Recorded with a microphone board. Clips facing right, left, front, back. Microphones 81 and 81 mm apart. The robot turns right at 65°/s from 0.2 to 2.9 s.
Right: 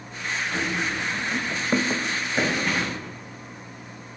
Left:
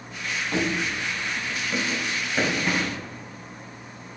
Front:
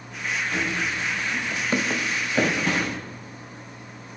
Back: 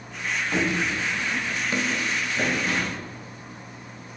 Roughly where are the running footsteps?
Behind left.